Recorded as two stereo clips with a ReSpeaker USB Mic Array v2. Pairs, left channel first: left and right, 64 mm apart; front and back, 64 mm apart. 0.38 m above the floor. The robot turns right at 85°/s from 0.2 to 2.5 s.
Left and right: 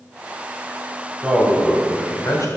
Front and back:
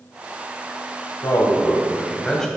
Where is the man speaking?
25° right, 1.7 m; by 2.5 s 85° left, 1.7 m.